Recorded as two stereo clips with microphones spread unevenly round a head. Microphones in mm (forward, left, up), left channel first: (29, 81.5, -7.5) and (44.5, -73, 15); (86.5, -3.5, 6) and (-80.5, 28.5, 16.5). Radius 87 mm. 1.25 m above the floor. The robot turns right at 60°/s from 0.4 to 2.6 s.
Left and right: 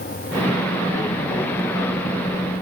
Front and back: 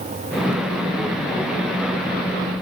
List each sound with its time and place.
Only background noise.